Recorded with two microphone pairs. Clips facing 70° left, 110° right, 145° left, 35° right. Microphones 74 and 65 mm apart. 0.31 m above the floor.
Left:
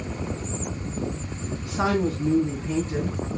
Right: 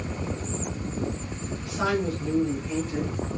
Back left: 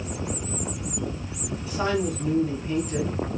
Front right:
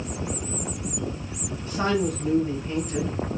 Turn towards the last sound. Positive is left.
turn(degrees=30)